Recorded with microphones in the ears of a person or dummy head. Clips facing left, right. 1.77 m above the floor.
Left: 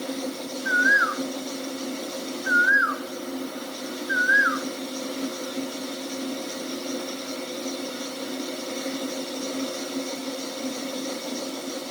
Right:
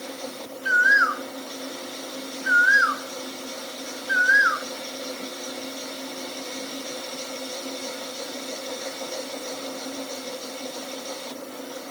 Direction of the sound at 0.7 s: 45° right (ahead or behind).